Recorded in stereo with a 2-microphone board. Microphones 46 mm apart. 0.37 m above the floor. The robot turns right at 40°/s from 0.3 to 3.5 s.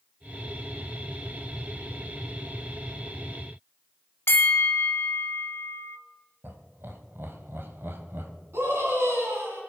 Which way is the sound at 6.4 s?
55° right (ahead or behind).